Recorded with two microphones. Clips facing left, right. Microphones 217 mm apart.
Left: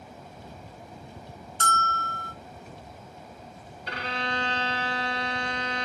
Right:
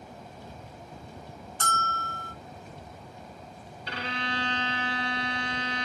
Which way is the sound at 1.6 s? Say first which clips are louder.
Left 3 dB; 65° left (ahead or behind).